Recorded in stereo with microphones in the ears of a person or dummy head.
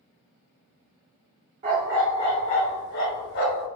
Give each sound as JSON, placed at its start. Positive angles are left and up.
{"t": 1.6, "sound": "a dog barking", "side_deg": -25, "distance_m": 1.0}